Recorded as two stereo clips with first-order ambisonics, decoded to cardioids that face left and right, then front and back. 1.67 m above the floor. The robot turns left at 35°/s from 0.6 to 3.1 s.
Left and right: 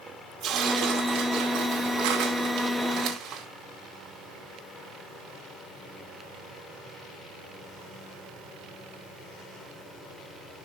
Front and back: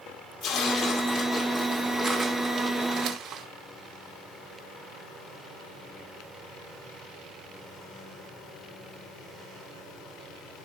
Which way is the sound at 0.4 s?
40° right.